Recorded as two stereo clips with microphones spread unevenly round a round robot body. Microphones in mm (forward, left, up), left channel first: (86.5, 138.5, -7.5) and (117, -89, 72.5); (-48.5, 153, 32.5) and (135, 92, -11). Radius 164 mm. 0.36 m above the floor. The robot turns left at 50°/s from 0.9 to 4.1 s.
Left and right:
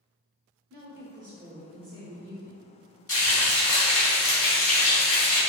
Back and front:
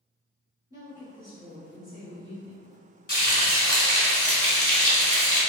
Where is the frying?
135° left, 1.9 m; by 5.4 s 80° left, 1.9 m.